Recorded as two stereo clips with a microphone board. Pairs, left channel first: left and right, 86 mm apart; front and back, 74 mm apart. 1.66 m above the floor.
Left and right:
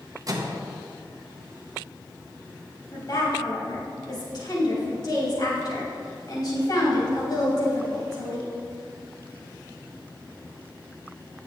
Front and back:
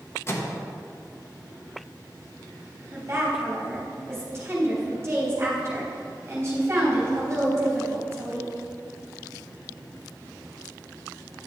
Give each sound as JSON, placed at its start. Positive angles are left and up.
{"t": 0.3, "sound": "a microwave", "azimuth_deg": -50, "distance_m": 1.2}
{"t": 2.9, "sound": "a woman speaking", "azimuth_deg": 125, "distance_m": 3.5}